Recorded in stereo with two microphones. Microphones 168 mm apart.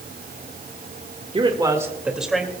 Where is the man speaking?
35° right (ahead or behind), 1.5 m; by 2.5 s 5° left (ahead or behind), 2.5 m.